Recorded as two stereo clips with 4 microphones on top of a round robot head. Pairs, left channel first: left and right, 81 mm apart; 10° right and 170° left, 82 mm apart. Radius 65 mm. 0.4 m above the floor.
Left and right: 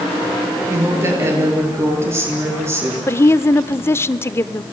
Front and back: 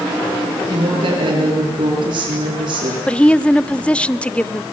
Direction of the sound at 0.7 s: 145° right.